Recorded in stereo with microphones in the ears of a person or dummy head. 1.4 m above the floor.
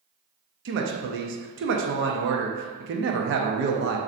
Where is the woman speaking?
55° right (ahead or behind), 0.5 m.